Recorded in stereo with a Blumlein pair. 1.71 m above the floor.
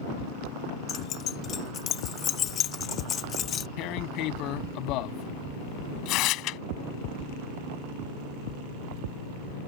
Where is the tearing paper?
40° left.